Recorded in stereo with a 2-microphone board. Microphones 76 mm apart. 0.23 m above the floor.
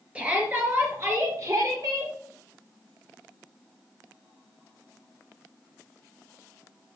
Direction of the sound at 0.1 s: 20° right (ahead or behind).